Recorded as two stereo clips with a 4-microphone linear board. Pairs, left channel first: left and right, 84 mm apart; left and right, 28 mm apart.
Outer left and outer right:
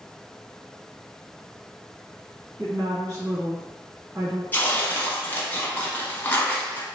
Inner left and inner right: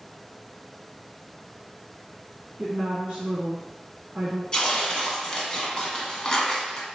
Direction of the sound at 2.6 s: 30° right (ahead or behind).